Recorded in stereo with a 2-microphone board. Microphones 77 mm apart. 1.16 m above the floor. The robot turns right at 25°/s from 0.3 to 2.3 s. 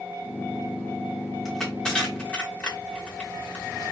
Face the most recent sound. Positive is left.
turn(degrees=20)  # may be behind; listen again after turning